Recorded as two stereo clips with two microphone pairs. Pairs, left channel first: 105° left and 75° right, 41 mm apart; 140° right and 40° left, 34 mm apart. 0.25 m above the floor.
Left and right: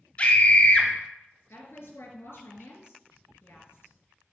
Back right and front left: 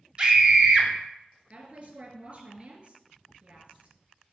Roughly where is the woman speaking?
Left.